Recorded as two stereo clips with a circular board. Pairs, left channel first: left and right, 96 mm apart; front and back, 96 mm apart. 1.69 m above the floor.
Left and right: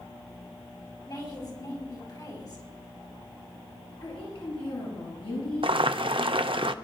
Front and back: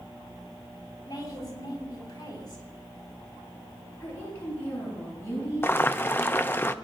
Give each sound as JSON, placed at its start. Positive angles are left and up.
{"t": 1.1, "sound": "a woman speaking", "azimuth_deg": 45, "distance_m": 5.0}
{"t": 4.0, "sound": "a woman speaking", "azimuth_deg": 60, "distance_m": 8.5}
{"t": 5.6, "sound": "boiling", "azimuth_deg": -70, "distance_m": 0.5}